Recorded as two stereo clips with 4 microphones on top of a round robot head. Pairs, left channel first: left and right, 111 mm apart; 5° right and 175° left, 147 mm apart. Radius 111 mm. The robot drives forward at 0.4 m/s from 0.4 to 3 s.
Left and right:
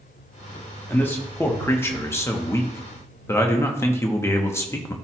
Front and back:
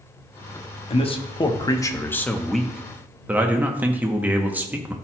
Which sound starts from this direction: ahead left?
A man speaking, at 0.9 s.